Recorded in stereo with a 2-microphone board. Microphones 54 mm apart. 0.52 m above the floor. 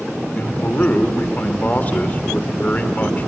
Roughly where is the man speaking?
Left.